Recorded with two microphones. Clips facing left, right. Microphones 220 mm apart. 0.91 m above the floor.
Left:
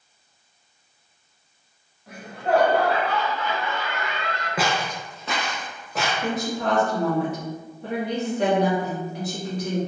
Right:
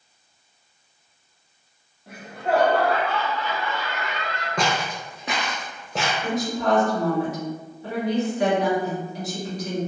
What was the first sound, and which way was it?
Laughter, 30° right (ahead or behind).